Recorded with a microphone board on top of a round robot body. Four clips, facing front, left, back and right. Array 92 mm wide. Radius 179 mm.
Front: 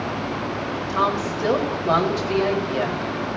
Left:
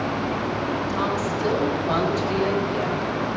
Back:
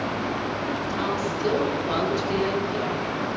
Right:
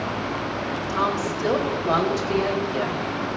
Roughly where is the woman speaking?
Ahead.